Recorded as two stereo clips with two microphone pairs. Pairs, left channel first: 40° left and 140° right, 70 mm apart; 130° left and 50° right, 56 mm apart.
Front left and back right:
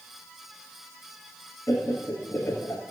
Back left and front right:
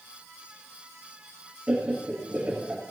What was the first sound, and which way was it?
Laughter, 10° left.